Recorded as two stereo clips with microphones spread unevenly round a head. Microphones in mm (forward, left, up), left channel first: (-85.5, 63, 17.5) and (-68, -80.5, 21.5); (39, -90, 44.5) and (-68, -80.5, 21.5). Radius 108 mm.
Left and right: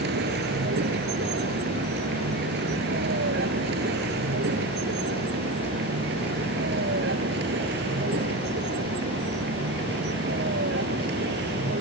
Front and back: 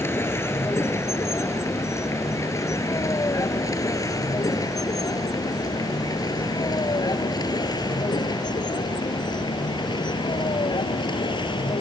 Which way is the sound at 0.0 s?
70° right.